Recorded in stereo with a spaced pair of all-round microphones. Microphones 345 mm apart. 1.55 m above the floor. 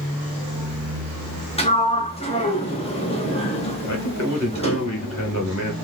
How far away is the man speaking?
About 2 m.